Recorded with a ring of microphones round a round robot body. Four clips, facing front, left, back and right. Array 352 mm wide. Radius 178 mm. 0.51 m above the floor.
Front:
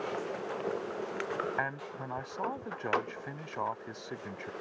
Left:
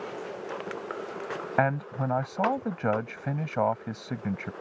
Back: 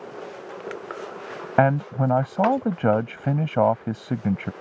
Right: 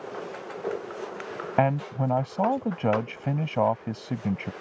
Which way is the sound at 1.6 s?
170° right.